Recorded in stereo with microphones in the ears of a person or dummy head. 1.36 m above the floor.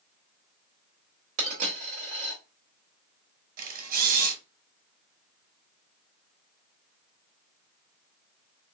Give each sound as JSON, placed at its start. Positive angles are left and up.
{"t": 1.4, "sound": "a dropped coin", "side_deg": -40, "distance_m": 1.4}
{"t": 3.6, "sound": "a camera shutter", "side_deg": -50, "distance_m": 1.0}